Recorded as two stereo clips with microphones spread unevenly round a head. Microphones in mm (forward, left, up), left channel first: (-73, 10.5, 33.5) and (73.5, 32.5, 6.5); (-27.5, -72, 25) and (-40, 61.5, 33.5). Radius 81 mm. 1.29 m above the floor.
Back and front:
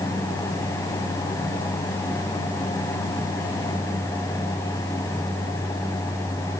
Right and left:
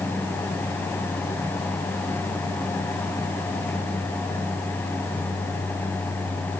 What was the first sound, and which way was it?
Only background noise.